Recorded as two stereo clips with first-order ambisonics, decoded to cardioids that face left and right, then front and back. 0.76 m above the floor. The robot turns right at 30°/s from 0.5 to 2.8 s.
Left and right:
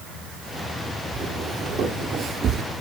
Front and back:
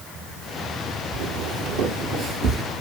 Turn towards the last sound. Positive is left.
turn(degrees=-125)